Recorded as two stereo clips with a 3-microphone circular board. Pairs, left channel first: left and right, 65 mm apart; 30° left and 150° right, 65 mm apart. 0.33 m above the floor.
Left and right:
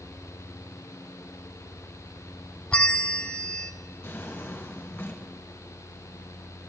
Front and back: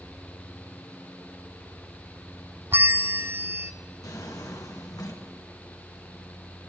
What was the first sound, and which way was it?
A bell, 160° left.